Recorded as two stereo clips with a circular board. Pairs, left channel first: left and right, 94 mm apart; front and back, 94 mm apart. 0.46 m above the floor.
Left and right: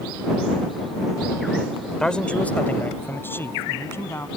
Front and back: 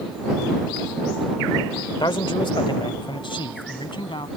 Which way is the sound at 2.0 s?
10° left.